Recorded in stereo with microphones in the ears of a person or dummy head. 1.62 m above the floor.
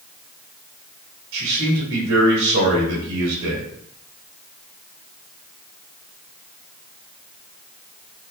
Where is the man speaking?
70° right (ahead or behind), 2 m.